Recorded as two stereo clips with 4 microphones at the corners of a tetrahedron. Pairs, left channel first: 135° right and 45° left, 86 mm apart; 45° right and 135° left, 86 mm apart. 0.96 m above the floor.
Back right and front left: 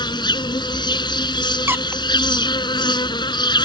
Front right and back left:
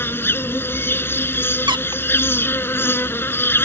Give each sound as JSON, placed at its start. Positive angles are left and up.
{"t": 0.0, "sound": "an insect", "azimuth_deg": -110}
{"t": 1.7, "sound": "a squeak", "azimuth_deg": 110}